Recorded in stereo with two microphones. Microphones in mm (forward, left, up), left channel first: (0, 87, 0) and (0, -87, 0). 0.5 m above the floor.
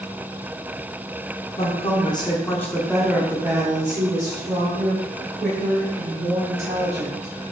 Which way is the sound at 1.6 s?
35° left (ahead or behind).